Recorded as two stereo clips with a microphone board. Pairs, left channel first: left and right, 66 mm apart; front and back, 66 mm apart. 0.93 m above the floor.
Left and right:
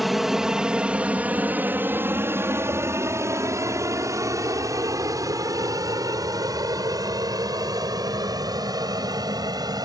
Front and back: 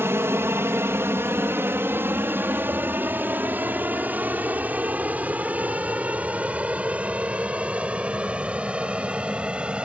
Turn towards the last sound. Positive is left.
turn(degrees=-105)